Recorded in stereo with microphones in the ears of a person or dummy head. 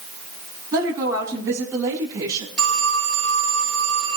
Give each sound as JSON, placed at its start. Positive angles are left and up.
{"t": 0.7, "sound": "a woman speaking", "side_deg": -15, "distance_m": 10.0}
{"t": 2.6, "sound": "a phone ringing", "side_deg": 10, "distance_m": 8.5}